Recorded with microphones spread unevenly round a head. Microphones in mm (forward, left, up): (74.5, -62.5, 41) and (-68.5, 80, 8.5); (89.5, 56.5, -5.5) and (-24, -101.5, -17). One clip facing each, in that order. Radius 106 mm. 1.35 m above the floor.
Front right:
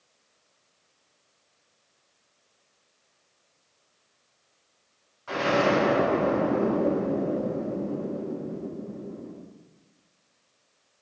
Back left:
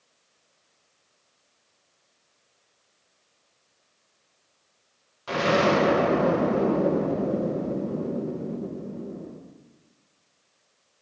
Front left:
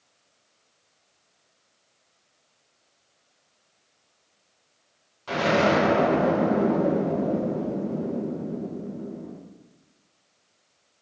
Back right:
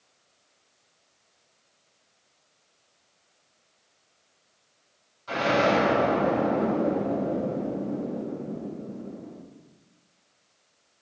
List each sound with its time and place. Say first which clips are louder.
5.3 s an explosion: back left 2 dB, front left 2 dB; 95° left, 1.2 m